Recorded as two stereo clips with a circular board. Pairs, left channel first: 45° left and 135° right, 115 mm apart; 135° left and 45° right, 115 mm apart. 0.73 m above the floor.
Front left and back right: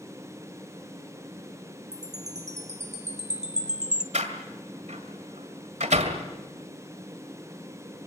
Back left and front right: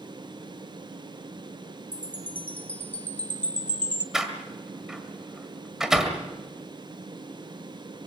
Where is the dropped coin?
I don't hear a dropped coin.